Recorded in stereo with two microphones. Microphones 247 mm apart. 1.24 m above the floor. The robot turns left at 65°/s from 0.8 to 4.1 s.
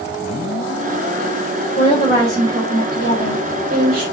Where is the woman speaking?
35° left, 4.5 m; by 4.0 s 115° right, 4.5 m.